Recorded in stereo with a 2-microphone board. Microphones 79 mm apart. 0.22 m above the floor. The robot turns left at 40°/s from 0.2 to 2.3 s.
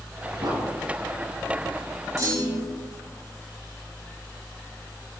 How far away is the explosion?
About 2.5 m.